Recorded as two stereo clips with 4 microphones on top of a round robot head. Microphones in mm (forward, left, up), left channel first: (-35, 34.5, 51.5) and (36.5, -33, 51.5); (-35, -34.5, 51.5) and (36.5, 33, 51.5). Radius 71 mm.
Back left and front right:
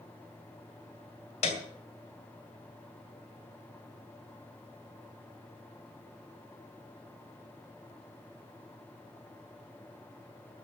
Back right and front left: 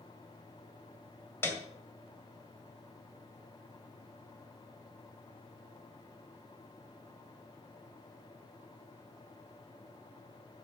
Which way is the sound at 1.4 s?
155° left.